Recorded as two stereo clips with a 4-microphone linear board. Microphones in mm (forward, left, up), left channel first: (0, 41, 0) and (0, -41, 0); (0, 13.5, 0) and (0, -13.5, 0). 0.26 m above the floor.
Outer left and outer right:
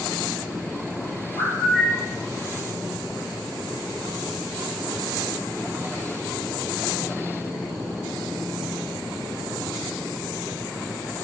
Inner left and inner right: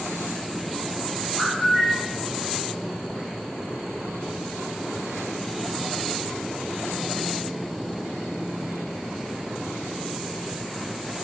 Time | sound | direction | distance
1.4 | a bird | 5° left (ahead or behind) | 1.8 m